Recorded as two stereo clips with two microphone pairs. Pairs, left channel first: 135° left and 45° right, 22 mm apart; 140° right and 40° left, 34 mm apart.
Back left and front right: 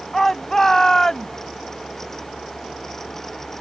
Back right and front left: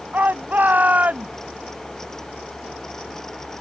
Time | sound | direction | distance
0.1 | a shout | 65° left | ?